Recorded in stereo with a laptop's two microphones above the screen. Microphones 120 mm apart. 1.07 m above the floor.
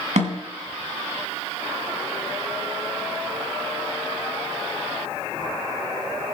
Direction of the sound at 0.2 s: 75° right (ahead or behind).